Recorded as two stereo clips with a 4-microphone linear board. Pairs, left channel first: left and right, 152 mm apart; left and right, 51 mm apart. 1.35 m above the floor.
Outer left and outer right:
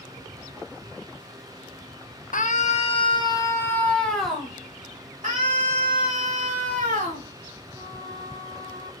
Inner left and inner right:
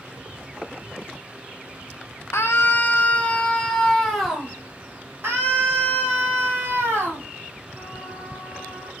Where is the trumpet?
30° right (ahead or behind), 1.2 m.